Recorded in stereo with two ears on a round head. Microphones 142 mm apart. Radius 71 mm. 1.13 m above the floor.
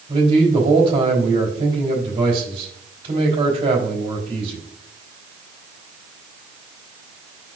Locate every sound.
0.1 s a man speaking: 35° right (ahead or behind), 3.5 m